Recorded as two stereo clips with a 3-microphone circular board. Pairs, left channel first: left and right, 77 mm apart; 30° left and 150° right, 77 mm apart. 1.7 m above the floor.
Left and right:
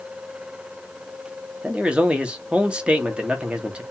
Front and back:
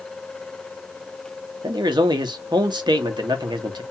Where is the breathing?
I don't hear breathing.